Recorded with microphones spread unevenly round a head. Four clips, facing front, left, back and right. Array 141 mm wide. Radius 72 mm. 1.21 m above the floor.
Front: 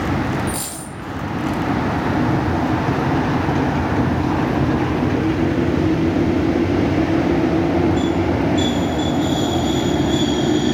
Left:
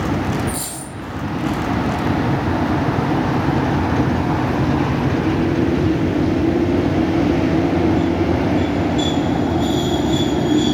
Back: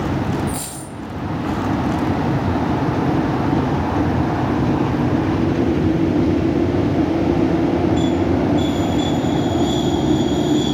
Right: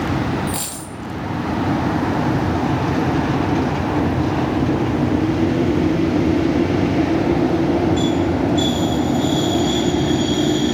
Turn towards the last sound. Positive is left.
turn(degrees=-95)